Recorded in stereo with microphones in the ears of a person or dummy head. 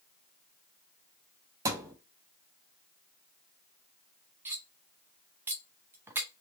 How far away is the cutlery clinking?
About 0.7 m.